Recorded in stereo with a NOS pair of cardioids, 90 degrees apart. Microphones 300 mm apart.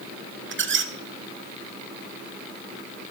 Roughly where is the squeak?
Ahead right.